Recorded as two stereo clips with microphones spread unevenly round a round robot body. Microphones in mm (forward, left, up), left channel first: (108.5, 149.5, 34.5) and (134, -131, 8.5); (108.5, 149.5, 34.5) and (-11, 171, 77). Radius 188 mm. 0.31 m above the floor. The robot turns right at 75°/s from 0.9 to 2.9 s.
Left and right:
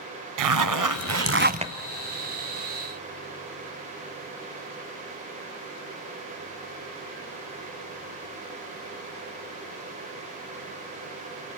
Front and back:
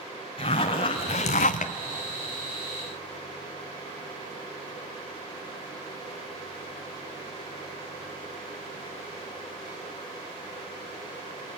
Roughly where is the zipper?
Right.